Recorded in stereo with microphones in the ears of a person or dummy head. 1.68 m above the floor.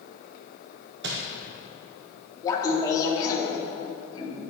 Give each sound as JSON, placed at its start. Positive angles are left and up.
{"t": 1.0, "sound": "crumpling", "side_deg": -55, "distance_m": 1.4}
{"t": 2.4, "sound": "laughter", "side_deg": 20, "distance_m": 3.5}